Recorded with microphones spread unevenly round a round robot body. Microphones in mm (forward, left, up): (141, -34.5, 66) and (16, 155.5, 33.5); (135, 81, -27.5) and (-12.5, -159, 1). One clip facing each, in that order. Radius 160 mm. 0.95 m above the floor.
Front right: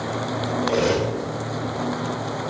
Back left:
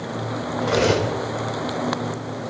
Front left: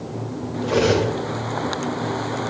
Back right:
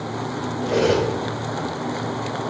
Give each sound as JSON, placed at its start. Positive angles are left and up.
{"t": 0.6, "sound": "cutlery clinking", "azimuth_deg": 140, "distance_m": 3.5}